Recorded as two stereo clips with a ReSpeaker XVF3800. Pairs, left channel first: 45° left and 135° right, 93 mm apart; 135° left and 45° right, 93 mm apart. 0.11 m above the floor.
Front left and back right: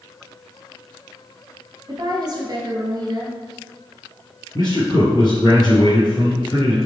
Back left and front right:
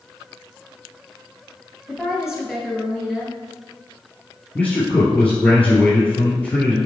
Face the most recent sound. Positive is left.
turn(degrees=60)